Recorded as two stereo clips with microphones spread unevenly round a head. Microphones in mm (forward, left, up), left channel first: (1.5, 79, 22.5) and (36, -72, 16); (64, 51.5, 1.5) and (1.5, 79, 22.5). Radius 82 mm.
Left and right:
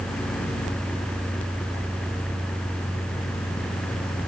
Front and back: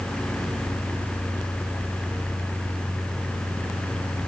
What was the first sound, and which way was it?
Only background noise.